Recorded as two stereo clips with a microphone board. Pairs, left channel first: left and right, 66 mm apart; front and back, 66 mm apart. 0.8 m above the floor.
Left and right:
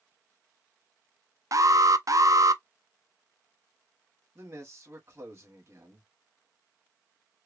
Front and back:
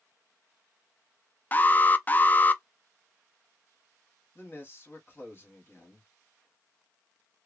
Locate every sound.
1.5 s an alarm: 60° right, 0.5 m
4.3 s a man speaking: 50° right, 2.0 m